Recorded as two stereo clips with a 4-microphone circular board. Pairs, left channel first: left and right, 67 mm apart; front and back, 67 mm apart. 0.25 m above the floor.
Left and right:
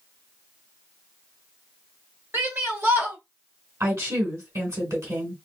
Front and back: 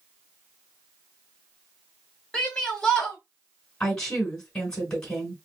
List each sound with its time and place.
2.3 s a shout: 65° right, 1.3 m
3.8 s a woman speaking: 80° right, 1.6 m